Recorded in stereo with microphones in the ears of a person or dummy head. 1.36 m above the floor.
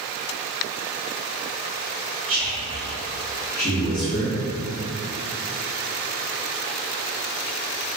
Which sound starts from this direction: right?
A man speaking, at 2.3 s.